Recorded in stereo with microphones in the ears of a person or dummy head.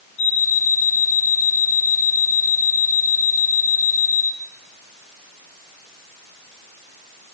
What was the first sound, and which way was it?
An alarm clock, 65° left (ahead or behind).